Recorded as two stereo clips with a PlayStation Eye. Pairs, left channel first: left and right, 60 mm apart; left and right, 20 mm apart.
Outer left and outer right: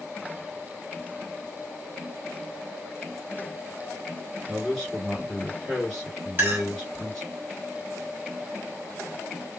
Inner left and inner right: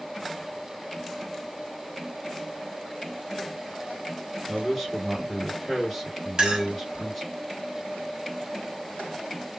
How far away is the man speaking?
About 2 m.